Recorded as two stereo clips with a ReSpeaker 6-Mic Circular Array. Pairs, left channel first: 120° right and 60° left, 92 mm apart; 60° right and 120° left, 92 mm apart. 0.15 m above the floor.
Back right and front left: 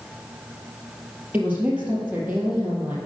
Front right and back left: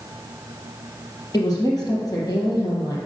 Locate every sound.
1.3 s a woman speaking: 15° right, 3 m